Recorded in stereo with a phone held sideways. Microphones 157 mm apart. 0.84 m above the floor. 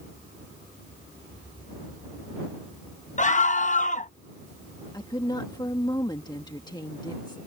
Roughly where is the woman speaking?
Left.